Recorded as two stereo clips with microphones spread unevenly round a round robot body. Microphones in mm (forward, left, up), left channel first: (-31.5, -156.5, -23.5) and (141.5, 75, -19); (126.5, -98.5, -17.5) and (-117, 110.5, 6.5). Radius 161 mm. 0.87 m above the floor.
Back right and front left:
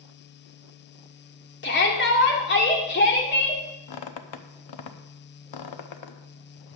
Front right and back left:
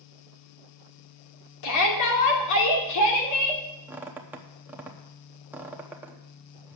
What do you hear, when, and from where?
1.6 s a shout: 75° right, 2.5 m
3.9 s a squeak: 135° right, 0.8 m